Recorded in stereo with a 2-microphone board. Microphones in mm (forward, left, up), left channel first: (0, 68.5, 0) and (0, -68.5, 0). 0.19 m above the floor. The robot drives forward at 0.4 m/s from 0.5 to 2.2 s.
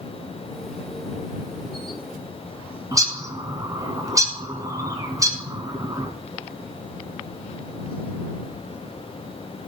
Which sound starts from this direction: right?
A bird, at 2.9 s.